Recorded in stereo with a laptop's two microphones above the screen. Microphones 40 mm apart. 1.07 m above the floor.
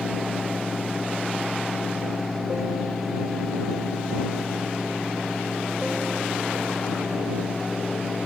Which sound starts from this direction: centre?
A fan, at 0.0 s.